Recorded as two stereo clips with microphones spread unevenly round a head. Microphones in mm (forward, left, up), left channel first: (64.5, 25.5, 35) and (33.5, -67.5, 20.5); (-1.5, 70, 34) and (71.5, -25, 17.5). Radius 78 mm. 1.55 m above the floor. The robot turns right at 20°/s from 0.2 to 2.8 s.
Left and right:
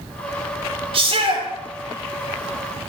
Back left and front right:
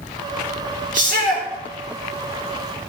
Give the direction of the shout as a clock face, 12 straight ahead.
3 o'clock.